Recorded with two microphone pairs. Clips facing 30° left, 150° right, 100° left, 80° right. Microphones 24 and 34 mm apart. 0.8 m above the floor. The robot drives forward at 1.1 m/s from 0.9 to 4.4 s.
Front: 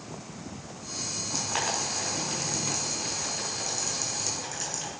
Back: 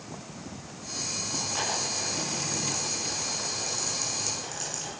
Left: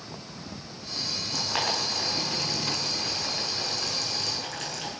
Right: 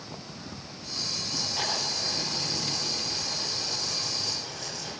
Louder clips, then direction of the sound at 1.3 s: Front 1 dB, left 4 dB; 80° left.